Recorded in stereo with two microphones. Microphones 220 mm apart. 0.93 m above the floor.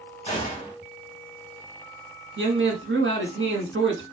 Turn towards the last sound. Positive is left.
turn(degrees=-55)  # may be behind; listen again after turning